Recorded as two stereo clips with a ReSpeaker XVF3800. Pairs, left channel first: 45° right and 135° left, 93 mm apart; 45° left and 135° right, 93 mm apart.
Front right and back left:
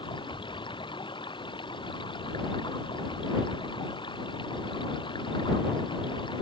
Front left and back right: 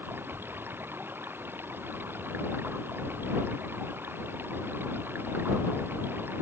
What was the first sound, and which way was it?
Running water, 70° right.